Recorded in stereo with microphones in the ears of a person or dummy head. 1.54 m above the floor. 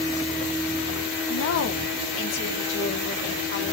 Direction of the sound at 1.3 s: 70° left (ahead or behind).